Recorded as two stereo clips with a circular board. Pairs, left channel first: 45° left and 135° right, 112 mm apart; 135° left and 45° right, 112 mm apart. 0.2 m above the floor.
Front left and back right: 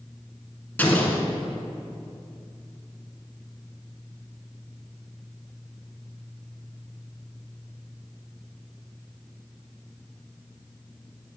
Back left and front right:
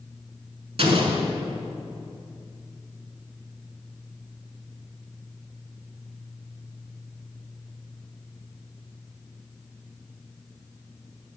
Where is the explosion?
30° right, 0.9 m.